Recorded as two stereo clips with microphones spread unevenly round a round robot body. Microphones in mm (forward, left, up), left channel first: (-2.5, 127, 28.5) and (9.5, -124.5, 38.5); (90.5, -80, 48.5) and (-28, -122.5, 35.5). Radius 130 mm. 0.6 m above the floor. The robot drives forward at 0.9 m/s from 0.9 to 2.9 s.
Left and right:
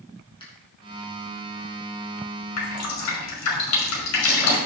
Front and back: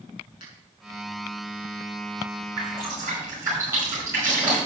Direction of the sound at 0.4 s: 25° left.